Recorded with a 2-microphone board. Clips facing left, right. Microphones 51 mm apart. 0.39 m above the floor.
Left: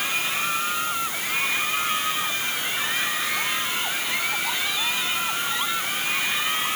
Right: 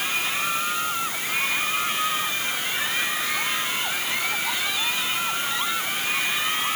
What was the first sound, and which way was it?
Only background noise.